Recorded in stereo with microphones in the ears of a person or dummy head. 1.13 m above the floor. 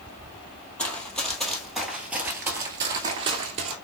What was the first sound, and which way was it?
Running footsteps, 10° left (ahead or behind).